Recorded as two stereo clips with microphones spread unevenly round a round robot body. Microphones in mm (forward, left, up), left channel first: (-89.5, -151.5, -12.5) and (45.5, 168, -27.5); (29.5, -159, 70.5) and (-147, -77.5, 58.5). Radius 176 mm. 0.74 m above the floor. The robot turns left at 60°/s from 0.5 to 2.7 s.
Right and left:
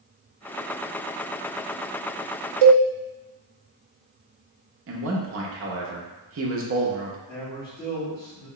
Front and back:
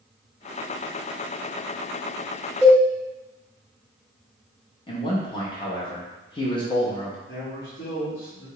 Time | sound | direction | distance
2.6 | a cowbell | 65° left | 0.5 m
4.9 | a man speaking | 35° left | 0.5 m
7.3 | a man speaking | 30° right | 1.3 m